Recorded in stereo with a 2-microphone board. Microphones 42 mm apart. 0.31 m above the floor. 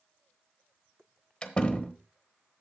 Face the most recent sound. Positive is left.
turn(degrees=25)  # may be behind; listen again after turning